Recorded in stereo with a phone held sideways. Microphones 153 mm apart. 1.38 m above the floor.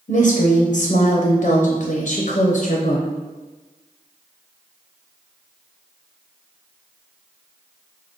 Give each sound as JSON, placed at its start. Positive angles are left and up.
{"t": 0.1, "sound": "a woman speaking", "side_deg": 55, "distance_m": 0.6}